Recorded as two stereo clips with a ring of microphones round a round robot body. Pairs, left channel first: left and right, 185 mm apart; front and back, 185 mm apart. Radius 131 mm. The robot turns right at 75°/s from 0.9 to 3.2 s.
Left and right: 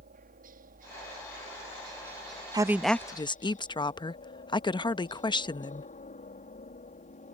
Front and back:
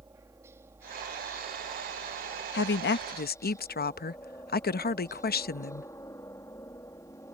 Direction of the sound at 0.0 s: 105° right.